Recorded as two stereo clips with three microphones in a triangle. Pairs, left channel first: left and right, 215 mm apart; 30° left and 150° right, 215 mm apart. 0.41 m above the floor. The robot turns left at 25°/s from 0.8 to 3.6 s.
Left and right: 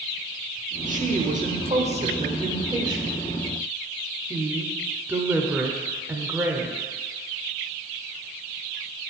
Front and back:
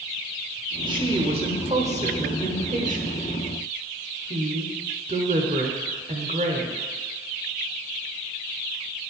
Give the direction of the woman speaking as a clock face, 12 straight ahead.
3 o'clock.